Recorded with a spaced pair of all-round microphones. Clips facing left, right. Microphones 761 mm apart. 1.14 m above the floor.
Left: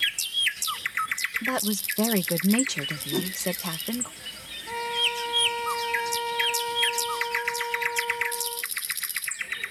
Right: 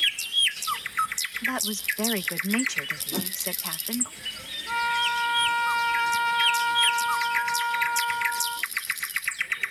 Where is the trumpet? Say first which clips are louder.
Left 3 dB; 80° right.